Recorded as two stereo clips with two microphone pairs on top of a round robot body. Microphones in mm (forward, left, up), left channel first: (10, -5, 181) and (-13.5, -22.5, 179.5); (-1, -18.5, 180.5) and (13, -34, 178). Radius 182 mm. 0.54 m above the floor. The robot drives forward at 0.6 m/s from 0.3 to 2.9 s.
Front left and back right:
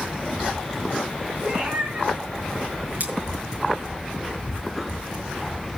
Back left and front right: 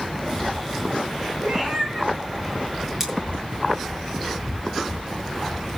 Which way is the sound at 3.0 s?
120° right.